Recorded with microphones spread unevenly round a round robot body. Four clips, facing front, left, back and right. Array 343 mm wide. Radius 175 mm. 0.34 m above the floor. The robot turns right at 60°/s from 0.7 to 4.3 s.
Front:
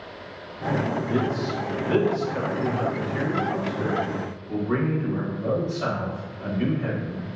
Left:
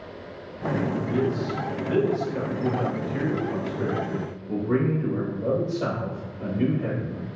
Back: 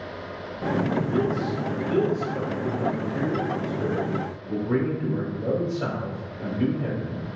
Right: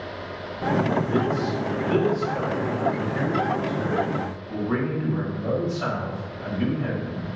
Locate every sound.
1.1 s a man speaking: 60° right, 1.2 m; by 7.2 s 130° left, 1.2 m